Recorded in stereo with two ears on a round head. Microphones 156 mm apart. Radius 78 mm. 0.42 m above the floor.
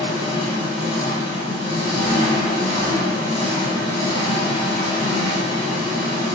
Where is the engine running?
30° left (ahead or behind), 0.9 m.